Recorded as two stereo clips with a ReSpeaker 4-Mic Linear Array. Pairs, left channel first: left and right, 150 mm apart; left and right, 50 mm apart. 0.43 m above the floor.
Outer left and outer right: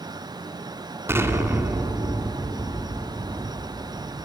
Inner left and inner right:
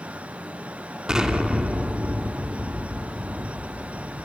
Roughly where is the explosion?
Centre.